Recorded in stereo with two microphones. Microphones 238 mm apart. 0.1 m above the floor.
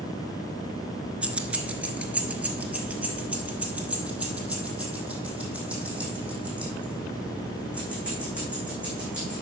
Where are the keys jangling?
5° right (ahead or behind), 0.8 m.